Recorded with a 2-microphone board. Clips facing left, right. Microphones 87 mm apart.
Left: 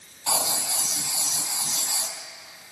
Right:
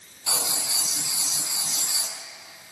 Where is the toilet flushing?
I don't hear a toilet flushing.